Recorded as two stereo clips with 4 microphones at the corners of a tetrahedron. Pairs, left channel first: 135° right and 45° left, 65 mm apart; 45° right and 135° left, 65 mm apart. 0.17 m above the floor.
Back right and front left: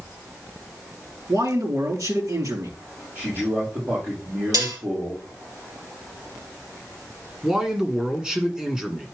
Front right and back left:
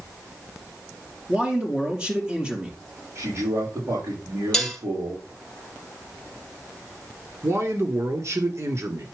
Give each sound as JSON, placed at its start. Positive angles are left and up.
{"t": 1.3, "sound": "a man speaking", "azimuth_deg": 65, "distance_m": 4.0}
{"t": 3.1, "sound": "a man speaking", "azimuth_deg": 95, "distance_m": 6.5}
{"t": 4.5, "sound": "dishes clattering", "azimuth_deg": 35, "distance_m": 2.5}
{"t": 7.4, "sound": "a man speaking", "azimuth_deg": 125, "distance_m": 1.9}